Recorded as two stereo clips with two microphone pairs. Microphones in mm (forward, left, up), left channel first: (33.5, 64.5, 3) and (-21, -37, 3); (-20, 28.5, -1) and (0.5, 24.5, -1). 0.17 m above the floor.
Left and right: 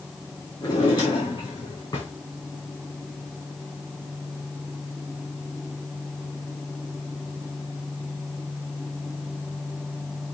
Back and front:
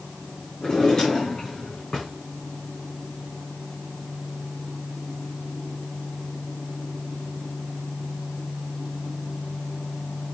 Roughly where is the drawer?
Left.